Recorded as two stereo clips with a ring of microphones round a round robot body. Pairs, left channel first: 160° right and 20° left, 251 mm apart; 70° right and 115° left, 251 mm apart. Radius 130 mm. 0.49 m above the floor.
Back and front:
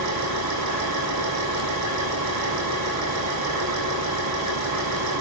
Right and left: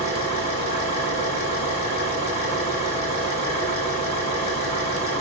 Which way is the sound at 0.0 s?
Straight ahead.